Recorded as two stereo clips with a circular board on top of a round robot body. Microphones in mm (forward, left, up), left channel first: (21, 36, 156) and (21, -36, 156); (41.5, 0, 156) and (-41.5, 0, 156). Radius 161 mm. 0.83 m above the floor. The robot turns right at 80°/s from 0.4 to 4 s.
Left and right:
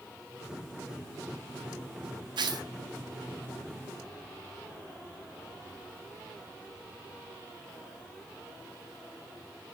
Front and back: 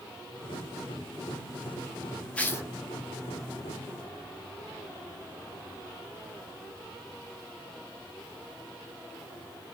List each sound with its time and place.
2.4 s tearing paper: 75° right, 0.6 m; by 2.7 s 50° right, 0.6 m